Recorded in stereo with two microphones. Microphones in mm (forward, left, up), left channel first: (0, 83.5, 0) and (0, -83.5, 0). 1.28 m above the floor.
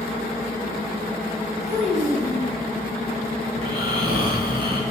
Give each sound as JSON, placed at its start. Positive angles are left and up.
{"t": 1.7, "sound": "a child speaking", "side_deg": 0, "distance_m": 5.5}
{"t": 3.5, "sound": "snoring", "side_deg": -30, "distance_m": 3.0}